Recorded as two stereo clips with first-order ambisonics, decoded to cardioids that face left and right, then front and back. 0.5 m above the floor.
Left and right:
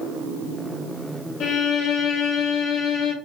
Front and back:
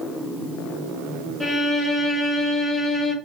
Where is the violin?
85° left, 1.8 m.